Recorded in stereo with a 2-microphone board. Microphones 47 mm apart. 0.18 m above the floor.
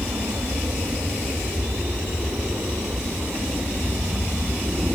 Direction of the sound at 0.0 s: 70° right (ahead or behind).